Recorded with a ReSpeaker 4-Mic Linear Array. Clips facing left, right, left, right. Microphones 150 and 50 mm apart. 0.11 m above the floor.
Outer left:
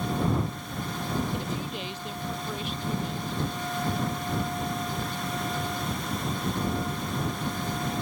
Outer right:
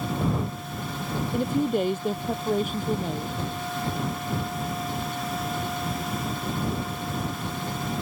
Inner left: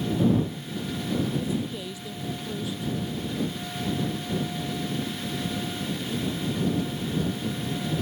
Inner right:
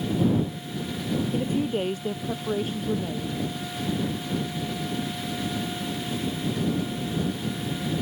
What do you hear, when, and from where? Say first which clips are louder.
1.3 s a woman speaking: outer right 9 dB, inner right 4 dB; 50° right (ahead or behind); by 3.4 s 45° right (ahead or behind)